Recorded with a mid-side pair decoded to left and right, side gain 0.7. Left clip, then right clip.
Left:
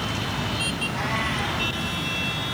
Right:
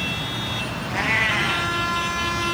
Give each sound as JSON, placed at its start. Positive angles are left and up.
{"t": 0.9, "sound": "a cat meowing", "azimuth_deg": -60, "distance_m": 7.0}